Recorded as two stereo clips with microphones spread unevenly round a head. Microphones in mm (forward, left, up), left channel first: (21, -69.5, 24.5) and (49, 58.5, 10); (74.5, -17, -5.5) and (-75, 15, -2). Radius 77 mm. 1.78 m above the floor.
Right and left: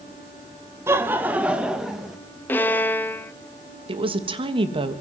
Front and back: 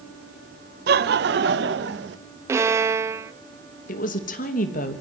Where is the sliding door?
No sliding door in this recording.